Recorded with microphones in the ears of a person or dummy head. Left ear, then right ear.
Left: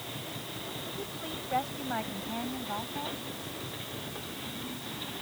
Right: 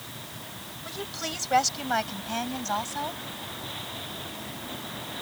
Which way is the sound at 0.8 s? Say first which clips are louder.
Right 4 dB; 75° right (ahead or behind).